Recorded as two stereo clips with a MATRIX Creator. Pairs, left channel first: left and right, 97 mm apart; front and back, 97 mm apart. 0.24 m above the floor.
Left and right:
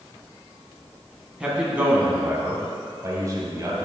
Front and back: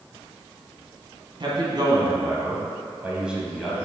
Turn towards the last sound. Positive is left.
turn(degrees=-85)